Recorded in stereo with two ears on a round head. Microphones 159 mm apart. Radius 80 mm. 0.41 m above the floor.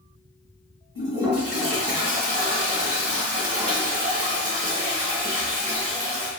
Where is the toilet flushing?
35° right (ahead or behind), 1.3 m.